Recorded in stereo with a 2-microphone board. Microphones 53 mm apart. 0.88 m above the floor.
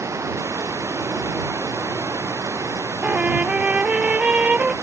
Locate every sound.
0.0 s running water: 60° right (ahead or behind)
3.0 s a trumpet: 25° right (ahead or behind)